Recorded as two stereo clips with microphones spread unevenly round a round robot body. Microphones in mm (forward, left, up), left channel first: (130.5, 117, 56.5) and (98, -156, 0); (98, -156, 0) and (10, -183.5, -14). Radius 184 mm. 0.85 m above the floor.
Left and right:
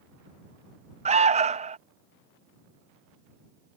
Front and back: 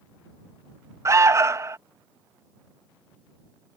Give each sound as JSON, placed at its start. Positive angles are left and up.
{"t": 1.1, "sound": "an alarm", "azimuth_deg": -140}